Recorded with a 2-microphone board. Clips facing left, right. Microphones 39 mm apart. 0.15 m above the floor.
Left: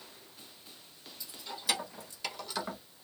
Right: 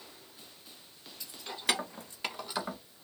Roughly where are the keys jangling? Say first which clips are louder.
Right 4 dB; right.